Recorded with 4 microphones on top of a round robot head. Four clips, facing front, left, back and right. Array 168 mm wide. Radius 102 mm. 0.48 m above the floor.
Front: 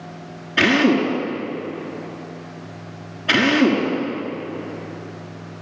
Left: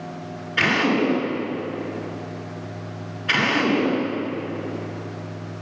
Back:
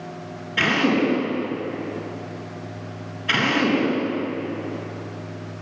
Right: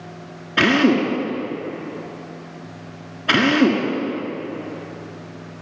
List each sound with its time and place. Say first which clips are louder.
0.6 s a drill: right 4 dB, front 4 dB; 85° right, 6.5 m